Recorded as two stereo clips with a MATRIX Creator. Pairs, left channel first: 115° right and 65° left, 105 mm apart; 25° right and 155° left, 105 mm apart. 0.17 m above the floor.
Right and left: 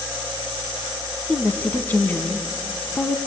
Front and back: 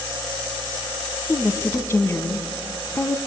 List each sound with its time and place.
1.3 s a woman speaking: 60° right, 1.5 m